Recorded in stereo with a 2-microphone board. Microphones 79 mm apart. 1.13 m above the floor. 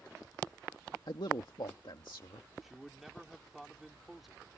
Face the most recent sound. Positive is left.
turn(degrees=-5)  # may be behind; listen again after turning